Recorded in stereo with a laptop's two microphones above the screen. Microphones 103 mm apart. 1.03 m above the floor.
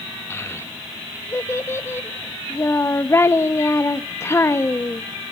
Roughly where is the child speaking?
Left.